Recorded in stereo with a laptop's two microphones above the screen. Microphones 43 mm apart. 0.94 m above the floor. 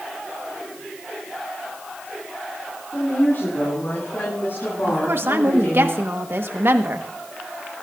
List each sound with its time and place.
2.9 s a woman speaking: 60° left (ahead or behind), 9.5 m; by 5.9 s 55° left (ahead or behind), 8 m
4.9 s a woman speaking: 65° right (ahead or behind), 1.2 m